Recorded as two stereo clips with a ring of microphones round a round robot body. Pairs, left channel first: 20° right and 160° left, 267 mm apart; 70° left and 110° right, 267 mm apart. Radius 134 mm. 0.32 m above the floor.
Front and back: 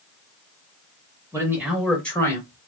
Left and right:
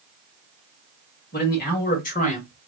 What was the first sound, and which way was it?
A man speaking, 85° left.